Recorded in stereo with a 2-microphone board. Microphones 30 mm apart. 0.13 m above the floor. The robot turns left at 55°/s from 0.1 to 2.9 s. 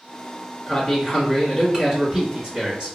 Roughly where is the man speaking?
Ahead.